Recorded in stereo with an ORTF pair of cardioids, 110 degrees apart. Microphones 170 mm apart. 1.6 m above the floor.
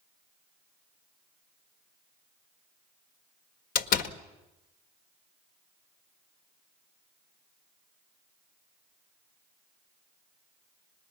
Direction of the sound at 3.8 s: 65° left.